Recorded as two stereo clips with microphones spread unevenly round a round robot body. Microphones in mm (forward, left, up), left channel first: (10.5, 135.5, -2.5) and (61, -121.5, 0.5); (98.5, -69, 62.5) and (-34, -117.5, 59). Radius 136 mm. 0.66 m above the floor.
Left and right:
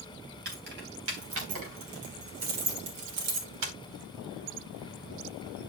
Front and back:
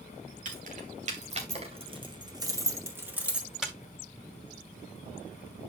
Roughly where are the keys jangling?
Behind right.